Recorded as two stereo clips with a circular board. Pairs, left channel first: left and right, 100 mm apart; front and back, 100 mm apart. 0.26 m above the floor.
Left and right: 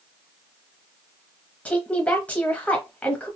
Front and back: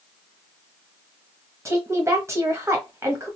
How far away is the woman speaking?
About 1.1 m.